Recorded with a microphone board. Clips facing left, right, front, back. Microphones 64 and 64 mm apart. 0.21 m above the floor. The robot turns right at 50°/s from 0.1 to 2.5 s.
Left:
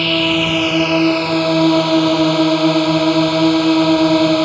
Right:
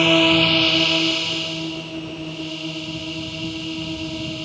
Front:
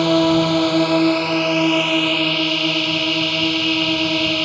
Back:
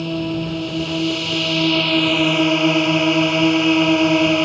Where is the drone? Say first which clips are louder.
Even, front 8 dB; 10° right; by 4.5 s 110° left.